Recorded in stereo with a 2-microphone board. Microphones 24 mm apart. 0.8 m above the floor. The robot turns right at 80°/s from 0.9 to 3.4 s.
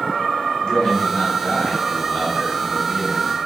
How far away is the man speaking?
About 5.5 m.